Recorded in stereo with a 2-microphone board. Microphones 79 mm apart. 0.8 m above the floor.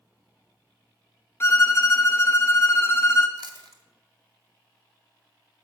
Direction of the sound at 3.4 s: 60° right (ahead or behind).